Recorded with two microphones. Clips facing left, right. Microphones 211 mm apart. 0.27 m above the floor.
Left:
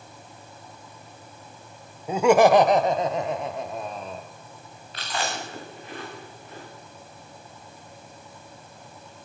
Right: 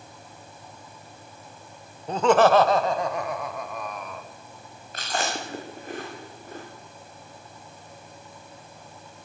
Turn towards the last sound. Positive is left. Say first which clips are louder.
# right 1 dB
turn(degrees=-45)  # may be behind; listen again after turning